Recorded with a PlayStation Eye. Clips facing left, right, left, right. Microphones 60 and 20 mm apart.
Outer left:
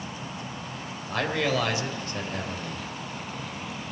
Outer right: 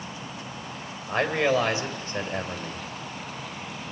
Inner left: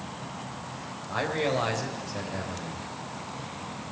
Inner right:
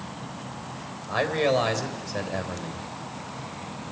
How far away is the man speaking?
About 3 m.